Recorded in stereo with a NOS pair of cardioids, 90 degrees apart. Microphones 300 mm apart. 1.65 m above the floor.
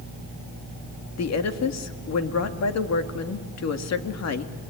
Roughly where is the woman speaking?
Ahead left.